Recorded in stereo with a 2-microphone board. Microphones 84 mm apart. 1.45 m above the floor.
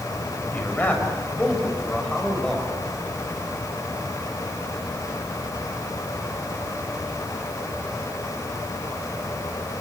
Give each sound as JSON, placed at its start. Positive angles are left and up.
{"t": 0.5, "sound": "a man speaking", "side_deg": 20, "distance_m": 7.0}